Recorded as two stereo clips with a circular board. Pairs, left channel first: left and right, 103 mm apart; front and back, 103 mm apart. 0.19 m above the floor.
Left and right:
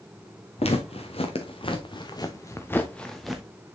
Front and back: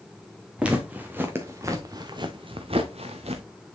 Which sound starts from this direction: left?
Footsteps, at 0.6 s.